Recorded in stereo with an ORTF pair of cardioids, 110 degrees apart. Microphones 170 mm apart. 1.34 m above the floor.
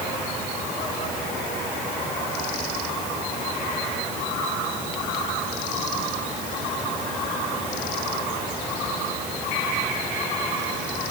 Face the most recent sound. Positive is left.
No sound to turn to.